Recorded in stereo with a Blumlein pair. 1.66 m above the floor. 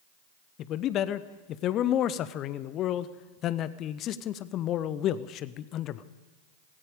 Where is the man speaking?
35° left, 0.7 m.